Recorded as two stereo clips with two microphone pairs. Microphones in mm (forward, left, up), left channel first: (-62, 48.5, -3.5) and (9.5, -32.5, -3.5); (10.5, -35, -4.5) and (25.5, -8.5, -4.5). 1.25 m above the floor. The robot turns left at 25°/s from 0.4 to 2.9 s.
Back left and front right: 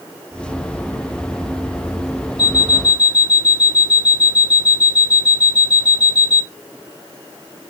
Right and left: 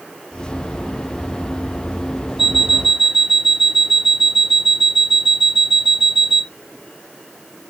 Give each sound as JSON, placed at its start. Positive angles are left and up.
{"t": 2.4, "sound": "an alarm clock", "azimuth_deg": 145, "distance_m": 0.6}